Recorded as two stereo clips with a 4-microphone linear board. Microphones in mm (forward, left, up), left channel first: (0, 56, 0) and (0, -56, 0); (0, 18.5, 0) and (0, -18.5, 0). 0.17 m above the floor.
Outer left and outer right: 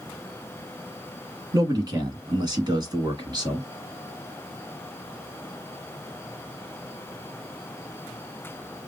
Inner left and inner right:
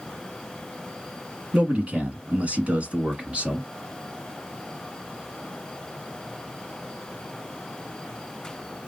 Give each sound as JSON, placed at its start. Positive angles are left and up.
{"t": 1.5, "sound": "a man speaking", "side_deg": -40, "distance_m": 1.8}